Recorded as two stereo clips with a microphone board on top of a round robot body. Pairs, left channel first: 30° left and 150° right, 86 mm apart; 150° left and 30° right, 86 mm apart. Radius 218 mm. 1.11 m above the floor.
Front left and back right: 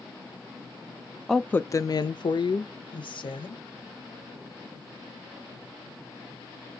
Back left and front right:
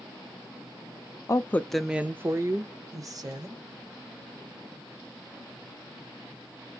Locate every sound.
1.3 s a woman speaking: 120° left, 0.5 m; by 3.6 s 10° left, 1.3 m